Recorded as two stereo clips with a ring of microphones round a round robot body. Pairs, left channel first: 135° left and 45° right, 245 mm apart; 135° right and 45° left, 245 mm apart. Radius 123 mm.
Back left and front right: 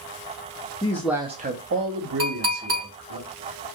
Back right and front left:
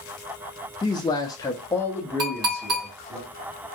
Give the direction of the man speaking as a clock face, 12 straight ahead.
6 o'clock.